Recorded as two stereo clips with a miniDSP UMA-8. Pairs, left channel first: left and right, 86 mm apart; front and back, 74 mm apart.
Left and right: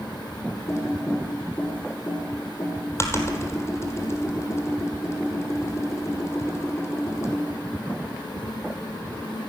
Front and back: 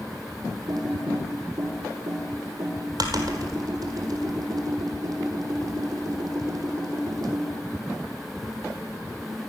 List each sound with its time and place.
0.7 s typing on a keyboard: 150° left, 1.5 m